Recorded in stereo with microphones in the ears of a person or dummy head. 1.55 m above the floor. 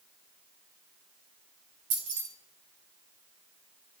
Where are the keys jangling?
25° right (ahead or behind), 0.5 m.